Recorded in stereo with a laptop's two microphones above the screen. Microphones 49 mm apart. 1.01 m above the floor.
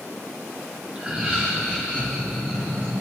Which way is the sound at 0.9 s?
20° right (ahead or behind).